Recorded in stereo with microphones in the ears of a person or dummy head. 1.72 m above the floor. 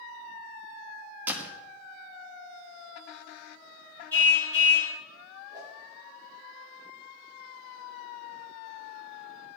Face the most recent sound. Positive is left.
turn(degrees=-25)  # may be behind; listen again after turning